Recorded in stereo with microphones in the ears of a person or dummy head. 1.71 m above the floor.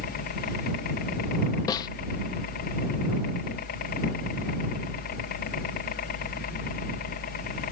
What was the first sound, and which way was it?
A helicopter, 45° left (ahead or behind).